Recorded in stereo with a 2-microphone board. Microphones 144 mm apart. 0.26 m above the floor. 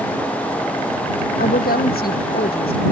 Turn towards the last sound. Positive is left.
turn(degrees=85)